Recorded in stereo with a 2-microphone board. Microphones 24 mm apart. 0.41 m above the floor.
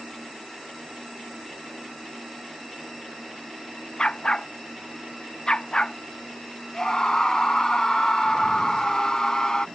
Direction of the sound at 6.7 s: 30° left (ahead or behind).